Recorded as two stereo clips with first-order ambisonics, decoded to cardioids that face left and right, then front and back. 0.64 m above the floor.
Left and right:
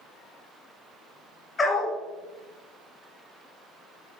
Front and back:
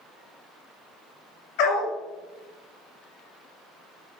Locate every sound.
1.6 s a dog barking: 15° left, 2 m